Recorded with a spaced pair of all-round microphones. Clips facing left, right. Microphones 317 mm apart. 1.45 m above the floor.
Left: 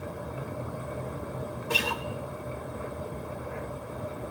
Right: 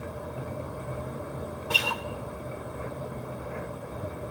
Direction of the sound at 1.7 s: 30° left (ahead or behind).